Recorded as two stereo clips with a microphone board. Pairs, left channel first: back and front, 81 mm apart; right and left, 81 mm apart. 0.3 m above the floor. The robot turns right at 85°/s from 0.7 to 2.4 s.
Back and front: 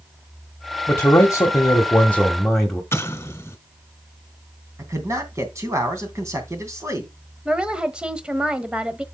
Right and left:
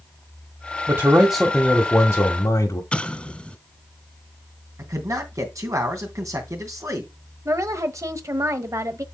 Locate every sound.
0.9 s a man speaking: 130° left, 1.4 m; by 2.8 s 100° right, 1.4 m
2.9 s an explosion: 155° right, 1.7 m
4.8 s a man speaking: 50° left, 2.5 m
7.5 s a woman speaking: 70° left, 1.1 m